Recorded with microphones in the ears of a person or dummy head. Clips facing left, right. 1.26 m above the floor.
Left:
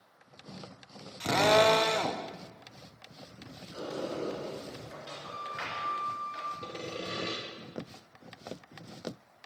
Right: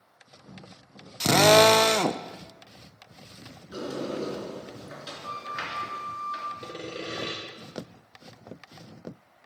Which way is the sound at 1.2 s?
55° right (ahead or behind).